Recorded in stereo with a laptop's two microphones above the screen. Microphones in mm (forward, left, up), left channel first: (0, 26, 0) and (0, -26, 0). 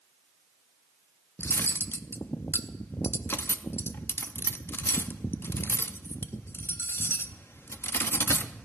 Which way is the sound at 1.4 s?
50° left (ahead or behind).